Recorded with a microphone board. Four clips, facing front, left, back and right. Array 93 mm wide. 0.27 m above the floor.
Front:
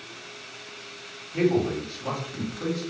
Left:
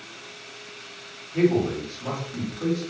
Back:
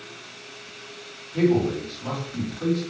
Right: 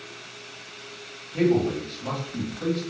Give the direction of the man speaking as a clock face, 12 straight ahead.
11 o'clock.